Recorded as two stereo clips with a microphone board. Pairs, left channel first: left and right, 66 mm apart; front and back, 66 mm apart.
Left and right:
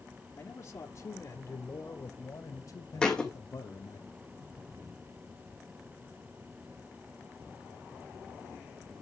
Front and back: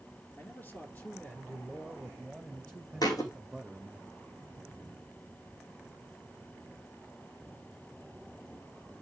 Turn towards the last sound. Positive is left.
turn(degrees=10)